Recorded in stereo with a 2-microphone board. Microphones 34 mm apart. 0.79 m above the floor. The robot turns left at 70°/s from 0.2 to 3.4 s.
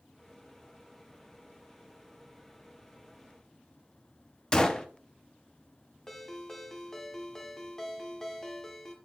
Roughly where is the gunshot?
Left.